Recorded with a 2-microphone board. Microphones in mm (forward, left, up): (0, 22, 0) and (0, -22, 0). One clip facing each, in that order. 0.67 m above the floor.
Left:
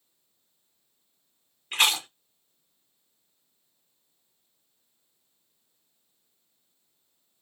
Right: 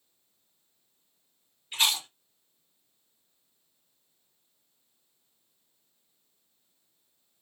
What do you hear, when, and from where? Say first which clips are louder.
1.7 s chewing: left 4 dB; 65° left (ahead or behind), 0.9 m